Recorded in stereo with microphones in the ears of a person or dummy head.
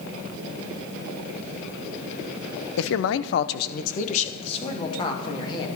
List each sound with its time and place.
2.8 s a man speaking: 75° left (ahead or behind), 0.8 m; by 5.7 s 25° left (ahead or behind), 2.5 m